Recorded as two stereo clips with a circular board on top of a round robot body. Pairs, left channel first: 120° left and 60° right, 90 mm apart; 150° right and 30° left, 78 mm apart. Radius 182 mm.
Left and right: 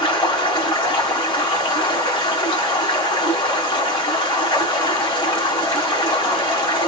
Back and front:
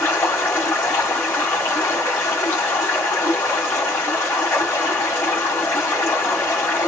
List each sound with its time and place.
0.0 s running water: 150° left, 1.8 m